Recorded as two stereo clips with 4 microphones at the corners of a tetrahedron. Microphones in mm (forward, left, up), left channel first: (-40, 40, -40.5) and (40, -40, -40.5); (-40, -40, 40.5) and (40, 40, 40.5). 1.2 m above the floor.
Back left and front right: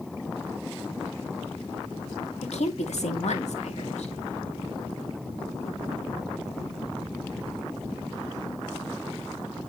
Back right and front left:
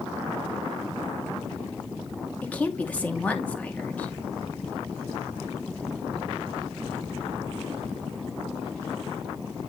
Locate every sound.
2.4 s a woman speaking: 150° left, 2 m